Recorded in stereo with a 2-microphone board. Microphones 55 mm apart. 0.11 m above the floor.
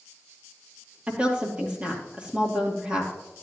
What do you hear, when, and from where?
1.1 s a woman speaking: 20° right (ahead or behind), 3 m